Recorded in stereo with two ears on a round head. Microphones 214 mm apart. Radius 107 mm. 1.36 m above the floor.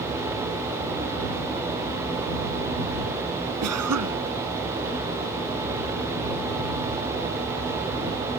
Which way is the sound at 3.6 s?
75° right (ahead or behind).